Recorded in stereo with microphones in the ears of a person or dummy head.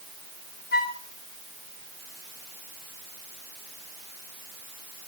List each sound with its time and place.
0.7 s a flute: 45° left (ahead or behind), 1.2 m